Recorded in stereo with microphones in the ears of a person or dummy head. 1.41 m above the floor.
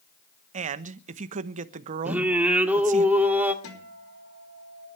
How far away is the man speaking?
About 1.0 m.